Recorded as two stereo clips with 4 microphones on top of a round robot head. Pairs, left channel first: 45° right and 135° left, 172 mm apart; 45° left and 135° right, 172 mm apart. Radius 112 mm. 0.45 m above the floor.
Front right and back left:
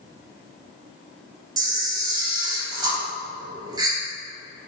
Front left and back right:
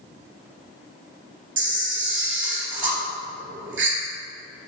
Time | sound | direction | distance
1.6 | a camera shutter | 155° right | 3 m